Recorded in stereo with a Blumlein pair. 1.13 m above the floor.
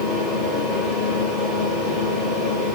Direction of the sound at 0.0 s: Straight ahead.